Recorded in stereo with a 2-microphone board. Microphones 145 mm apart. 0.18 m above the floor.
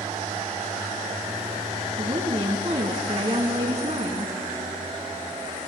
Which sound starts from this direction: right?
A woman speaking, at 2.0 s.